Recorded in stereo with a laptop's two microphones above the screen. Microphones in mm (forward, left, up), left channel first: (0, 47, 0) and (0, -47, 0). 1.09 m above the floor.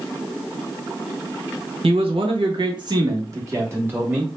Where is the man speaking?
80° right, 0.9 m; by 4.3 s 15° right (ahead or behind), 1.5 m.